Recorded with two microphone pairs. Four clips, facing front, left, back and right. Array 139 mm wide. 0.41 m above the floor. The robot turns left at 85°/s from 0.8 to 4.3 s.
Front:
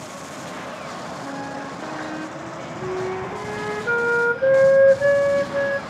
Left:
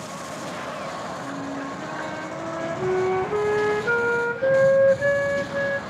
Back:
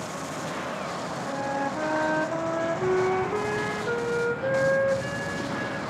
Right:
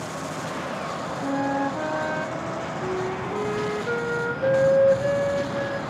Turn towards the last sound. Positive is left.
turn(degrees=15)